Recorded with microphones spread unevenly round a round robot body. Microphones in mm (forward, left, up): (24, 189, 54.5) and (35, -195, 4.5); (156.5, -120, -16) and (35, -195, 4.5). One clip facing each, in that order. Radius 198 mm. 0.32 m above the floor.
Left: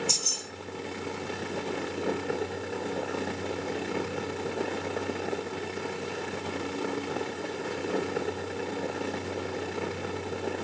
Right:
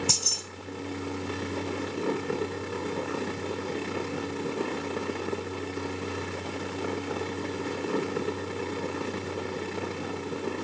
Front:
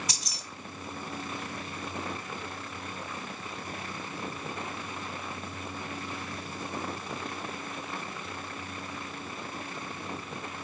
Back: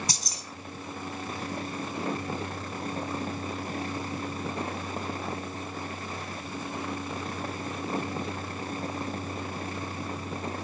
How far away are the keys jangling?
About 1.6 m.